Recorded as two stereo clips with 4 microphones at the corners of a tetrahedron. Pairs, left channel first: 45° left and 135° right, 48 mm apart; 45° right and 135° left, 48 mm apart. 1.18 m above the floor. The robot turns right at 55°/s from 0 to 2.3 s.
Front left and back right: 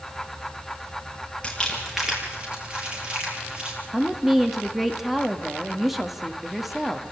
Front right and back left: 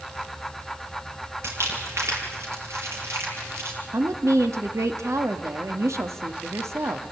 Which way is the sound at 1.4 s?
115° left.